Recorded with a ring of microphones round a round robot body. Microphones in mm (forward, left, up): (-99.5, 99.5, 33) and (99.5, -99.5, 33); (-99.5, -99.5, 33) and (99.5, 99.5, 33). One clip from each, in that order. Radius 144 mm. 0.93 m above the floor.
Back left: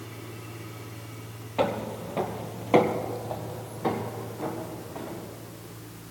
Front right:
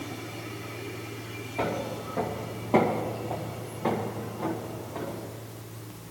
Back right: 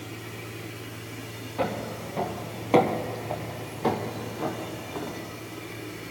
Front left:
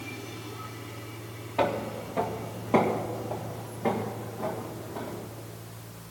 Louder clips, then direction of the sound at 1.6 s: Back left 3 dB, front left 2 dB; 100° left.